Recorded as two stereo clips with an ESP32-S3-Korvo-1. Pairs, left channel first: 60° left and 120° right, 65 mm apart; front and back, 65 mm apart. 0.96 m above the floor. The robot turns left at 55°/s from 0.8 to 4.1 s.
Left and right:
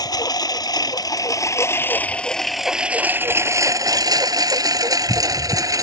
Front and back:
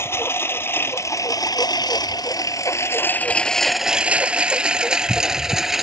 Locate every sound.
0.0 s a lawn mower: 50° left; by 5.8 s 95° right